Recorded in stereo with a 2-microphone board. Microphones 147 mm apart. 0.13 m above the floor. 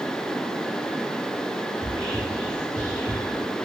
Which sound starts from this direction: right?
Whispering, at 1.8 s.